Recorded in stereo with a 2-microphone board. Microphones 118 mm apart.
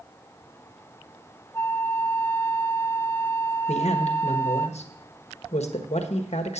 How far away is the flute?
About 0.5 m.